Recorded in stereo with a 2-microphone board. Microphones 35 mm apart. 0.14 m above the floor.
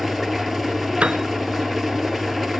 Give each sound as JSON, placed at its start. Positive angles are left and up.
{"t": 0.0, "sound": "an engine running", "side_deg": 0, "distance_m": 0.9}
{"t": 1.0, "sound": "a piano", "side_deg": -35, "distance_m": 0.6}